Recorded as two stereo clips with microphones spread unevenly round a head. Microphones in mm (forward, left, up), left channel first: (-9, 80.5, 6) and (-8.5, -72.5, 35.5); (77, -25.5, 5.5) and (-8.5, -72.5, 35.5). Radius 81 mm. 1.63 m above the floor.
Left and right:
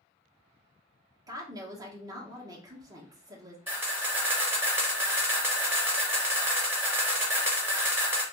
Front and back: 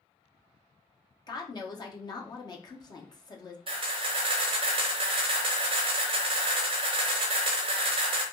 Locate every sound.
1.3 s a woman speaking: 20° right, 1.0 m
3.7 s a camera shutter: 160° right, 0.8 m